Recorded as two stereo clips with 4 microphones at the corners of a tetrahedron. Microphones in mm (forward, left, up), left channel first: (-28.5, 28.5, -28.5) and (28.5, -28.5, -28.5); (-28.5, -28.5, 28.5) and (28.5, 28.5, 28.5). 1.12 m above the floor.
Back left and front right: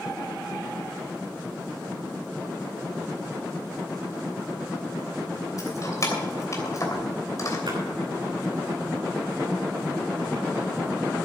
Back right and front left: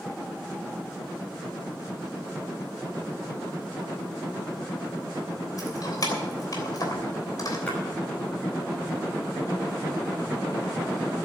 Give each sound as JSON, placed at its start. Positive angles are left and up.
{"t": 5.6, "sound": "keys jangling", "azimuth_deg": -175, "distance_m": 3.0}
{"t": 7.7, "sound": "a splash", "azimuth_deg": -60, "distance_m": 5.5}